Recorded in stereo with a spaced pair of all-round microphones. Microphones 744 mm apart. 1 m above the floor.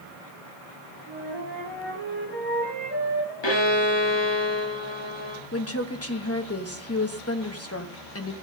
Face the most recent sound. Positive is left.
turn(degrees=20)  # may be behind; listen again after turning